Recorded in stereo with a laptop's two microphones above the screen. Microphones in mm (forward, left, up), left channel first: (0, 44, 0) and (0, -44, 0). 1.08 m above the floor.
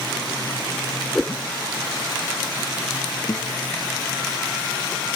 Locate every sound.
1.1 s a whoosh: 5° left (ahead or behind)
3.3 s a guitar: 40° left (ahead or behind)